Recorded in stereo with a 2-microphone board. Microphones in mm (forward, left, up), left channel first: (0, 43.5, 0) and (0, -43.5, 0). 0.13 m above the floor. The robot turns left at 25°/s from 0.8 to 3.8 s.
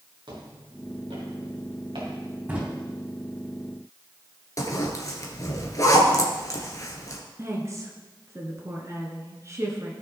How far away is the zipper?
About 1.9 m.